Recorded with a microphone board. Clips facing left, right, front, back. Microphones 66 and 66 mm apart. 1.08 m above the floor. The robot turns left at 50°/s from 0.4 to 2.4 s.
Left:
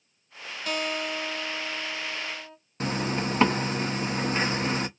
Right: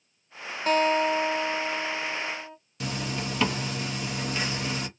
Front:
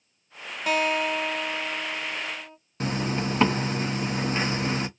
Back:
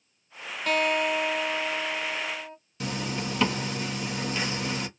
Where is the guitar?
70° right, 0.7 m; by 2.6 s 160° right, 0.7 m.